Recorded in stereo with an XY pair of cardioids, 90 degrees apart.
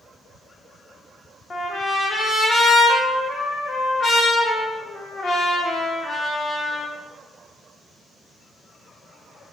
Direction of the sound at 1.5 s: 50° left.